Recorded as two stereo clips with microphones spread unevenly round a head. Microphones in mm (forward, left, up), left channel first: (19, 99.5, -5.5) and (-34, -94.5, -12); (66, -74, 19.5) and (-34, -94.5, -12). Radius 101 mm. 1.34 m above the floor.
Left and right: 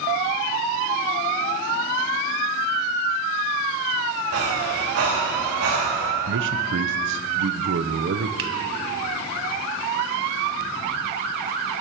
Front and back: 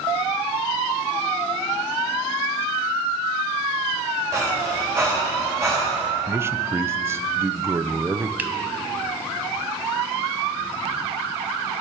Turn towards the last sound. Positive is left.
turn(degrees=-85)